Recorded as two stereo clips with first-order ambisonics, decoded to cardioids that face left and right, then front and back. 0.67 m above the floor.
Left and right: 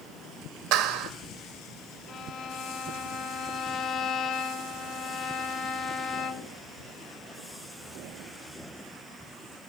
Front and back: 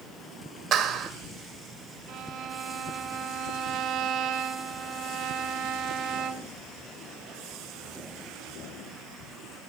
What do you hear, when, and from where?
0.7 s a clap: 125° right, 1.8 m
2.1 s a violin: 145° left, 1.2 m